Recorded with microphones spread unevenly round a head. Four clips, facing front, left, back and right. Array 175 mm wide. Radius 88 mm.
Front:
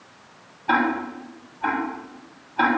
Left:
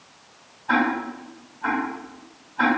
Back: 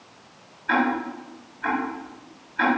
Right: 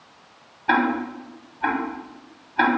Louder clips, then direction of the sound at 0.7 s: Right 1 dB, front 1 dB; 70° right.